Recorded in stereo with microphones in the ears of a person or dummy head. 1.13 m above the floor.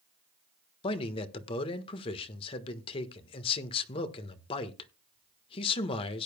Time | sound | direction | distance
0.8 | a man speaking | 35° left (ahead or behind) | 1.2 m